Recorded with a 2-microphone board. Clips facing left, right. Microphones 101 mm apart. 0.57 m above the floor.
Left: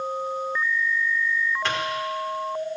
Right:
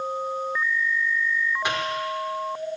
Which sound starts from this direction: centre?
A microwave, at 1.6 s.